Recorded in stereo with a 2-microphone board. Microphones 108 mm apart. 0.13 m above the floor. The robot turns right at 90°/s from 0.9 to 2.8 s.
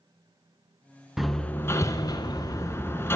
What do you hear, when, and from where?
1.2 s hammering: 5° right (ahead or behind), 0.5 m; by 3.2 s 20° left (ahead or behind), 0.5 m